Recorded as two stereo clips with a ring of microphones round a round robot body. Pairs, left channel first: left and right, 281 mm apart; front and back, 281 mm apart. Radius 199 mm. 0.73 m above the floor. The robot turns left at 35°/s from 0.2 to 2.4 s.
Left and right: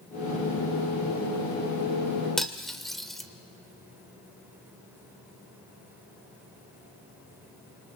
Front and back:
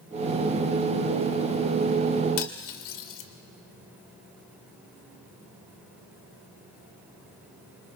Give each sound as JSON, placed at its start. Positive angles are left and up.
{"t": 2.4, "sound": "cutlery clinking", "azimuth_deg": 0, "distance_m": 1.6}